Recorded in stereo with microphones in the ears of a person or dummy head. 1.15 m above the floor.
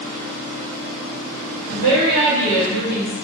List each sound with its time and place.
1.7 s a woman speaking: 80° right, 1.4 m; by 3.1 s 45° right (ahead or behind), 0.7 m